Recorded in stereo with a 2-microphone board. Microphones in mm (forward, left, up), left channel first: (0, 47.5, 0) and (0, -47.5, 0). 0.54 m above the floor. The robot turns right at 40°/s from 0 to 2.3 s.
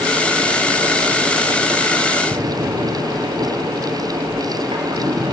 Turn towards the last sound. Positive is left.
turn(degrees=-65)  # may be behind; listen again after turning